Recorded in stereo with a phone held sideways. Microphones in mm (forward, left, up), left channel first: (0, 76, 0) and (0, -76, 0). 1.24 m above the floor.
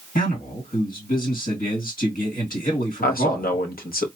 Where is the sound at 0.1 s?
70° left (ahead or behind), 2.5 m.